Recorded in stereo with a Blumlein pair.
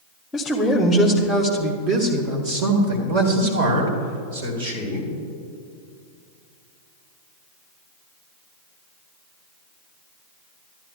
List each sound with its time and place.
0.3 s a man speaking: 10° left, 1.1 m; by 5.1 s 70° right, 3 m